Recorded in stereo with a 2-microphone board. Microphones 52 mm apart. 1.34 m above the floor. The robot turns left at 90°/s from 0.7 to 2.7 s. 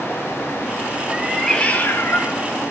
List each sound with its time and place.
1.1 s a cat meowing: 165° right, 0.8 m; by 2.4 s 80° left, 0.8 m